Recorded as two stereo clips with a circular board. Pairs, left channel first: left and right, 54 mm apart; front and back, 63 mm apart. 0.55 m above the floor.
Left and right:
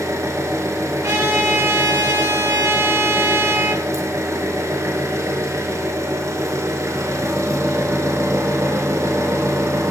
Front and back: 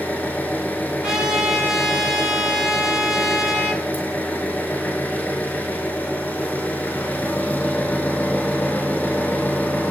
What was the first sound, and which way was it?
An engine running, 65° right.